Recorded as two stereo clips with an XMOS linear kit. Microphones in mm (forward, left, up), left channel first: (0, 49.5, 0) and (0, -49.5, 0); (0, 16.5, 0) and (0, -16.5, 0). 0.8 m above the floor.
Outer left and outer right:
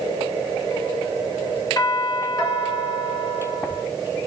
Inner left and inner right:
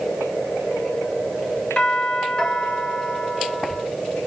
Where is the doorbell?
40° left (ahead or behind), 3.5 m.